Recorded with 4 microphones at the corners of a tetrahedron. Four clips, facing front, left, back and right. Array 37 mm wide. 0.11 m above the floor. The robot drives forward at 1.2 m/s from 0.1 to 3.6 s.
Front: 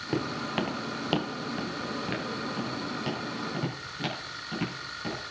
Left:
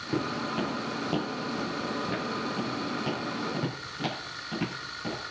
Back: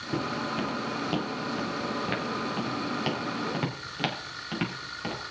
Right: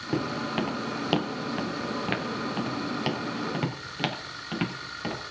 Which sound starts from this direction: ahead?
Footsteps, at 0.1 s.